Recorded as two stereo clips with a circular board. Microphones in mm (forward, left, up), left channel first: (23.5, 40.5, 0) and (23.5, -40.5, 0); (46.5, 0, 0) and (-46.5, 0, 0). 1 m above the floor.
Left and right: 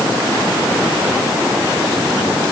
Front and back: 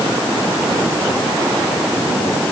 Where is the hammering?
I don't hear hammering.